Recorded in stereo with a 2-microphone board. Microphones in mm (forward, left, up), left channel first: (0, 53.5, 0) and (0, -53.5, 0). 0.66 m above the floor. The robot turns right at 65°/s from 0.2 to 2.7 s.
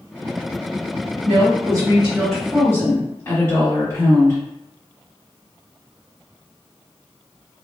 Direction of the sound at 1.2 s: 65° right.